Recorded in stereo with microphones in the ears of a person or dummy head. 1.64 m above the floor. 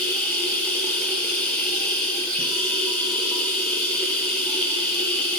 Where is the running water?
10° left (ahead or behind), 6 m.